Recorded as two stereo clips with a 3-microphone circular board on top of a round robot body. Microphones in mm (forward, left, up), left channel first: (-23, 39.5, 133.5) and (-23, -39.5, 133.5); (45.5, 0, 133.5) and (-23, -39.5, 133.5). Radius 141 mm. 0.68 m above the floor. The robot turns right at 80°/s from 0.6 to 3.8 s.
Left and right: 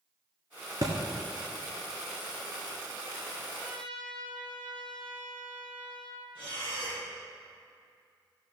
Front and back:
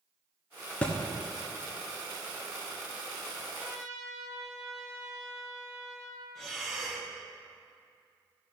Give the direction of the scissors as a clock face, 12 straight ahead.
No scissors in this recording.